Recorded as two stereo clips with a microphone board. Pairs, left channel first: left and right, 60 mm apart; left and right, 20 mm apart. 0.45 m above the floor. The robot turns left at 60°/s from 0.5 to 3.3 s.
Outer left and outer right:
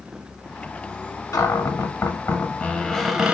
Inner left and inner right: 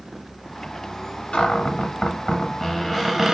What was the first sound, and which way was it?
A cupboard door, 105° left.